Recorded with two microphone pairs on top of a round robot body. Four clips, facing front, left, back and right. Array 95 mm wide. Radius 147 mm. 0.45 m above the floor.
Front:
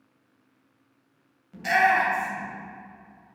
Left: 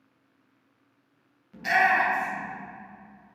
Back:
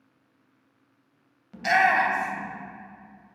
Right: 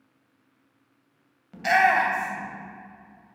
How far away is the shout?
About 2.5 m.